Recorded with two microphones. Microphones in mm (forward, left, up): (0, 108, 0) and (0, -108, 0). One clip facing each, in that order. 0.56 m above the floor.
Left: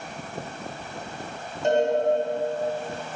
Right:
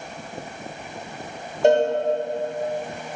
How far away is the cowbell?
About 1.0 m.